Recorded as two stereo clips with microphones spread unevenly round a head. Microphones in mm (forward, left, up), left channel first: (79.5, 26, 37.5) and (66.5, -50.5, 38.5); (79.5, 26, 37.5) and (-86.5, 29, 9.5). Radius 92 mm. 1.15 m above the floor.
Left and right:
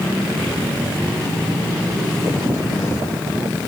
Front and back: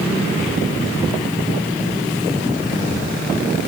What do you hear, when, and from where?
Only background noise.